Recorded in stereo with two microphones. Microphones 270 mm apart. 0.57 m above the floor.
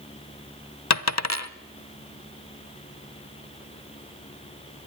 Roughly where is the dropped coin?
Left.